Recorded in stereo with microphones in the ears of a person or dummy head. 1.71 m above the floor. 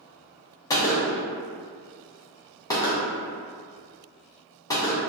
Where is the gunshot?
20° left (ahead or behind), 0.5 m.